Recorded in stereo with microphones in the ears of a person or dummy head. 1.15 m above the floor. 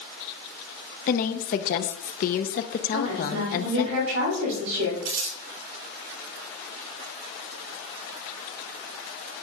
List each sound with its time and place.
1.1 s a woman speaking: 45° left (ahead or behind), 0.6 m
2.9 s a woman speaking: 75° right (ahead or behind), 5 m
5.0 s crumpling: 60° right (ahead or behind), 4 m